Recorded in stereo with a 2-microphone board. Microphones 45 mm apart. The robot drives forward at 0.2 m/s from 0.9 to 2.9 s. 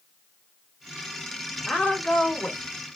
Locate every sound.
1.7 s a woman speaking: 20° left (ahead or behind), 0.8 m